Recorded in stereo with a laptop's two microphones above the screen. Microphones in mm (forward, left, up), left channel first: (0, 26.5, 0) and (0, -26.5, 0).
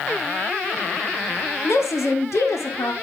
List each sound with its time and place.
1.6 s a woman speaking: 70° left (ahead or behind), 1.8 m; by 2.9 s 75° left (ahead or behind), 2.5 m